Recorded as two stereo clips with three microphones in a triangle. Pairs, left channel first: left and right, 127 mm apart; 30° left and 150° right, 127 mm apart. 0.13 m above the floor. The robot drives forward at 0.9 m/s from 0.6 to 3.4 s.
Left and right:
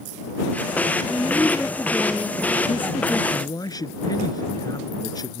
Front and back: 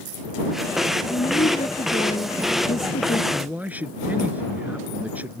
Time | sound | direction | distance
1.0 | a woman speaking | 10° left | ?
3.3 | a man speaking | 135° left | ?